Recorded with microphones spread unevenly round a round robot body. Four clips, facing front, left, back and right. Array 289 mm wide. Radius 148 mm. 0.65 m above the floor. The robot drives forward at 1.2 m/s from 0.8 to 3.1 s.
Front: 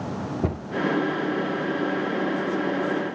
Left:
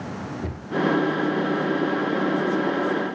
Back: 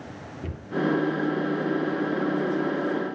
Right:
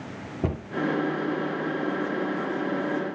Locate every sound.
0.4 s a cupboard door: 30° right, 1.7 m